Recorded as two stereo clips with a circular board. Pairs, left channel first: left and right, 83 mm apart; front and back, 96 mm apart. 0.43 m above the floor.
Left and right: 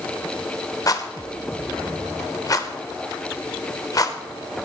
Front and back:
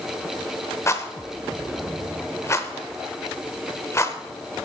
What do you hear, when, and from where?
0.9 s a rattle: 55° left, 0.9 m